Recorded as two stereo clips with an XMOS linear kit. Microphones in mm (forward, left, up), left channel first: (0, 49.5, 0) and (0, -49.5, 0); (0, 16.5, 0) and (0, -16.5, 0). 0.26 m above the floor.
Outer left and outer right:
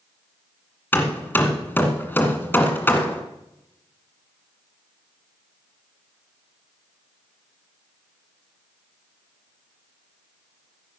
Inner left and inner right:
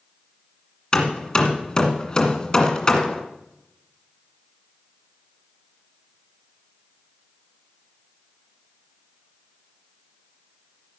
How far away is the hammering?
About 1.6 m.